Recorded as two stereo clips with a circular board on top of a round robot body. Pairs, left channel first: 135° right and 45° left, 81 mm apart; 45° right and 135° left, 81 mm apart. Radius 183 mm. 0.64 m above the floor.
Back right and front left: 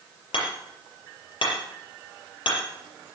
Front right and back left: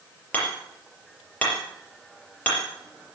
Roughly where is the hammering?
Behind right.